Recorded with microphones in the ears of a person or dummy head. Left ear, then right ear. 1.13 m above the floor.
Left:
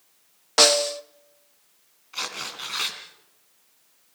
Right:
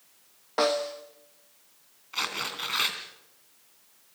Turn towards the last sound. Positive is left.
turn(degrees=0)  # may be behind; listen again after turning